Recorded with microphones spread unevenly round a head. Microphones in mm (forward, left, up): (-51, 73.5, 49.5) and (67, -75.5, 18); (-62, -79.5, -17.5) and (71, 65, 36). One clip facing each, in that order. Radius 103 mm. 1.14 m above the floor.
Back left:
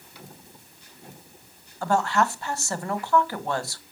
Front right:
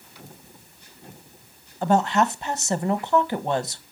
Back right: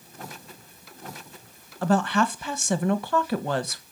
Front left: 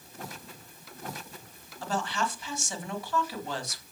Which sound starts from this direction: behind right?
A woman speaking, at 1.8 s.